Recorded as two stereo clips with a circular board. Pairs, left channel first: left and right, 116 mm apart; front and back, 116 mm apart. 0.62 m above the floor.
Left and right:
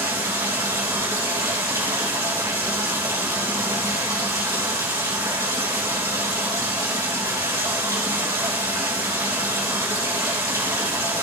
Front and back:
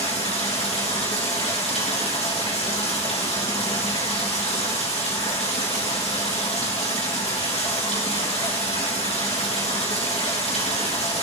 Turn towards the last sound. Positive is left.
turn(degrees=-25)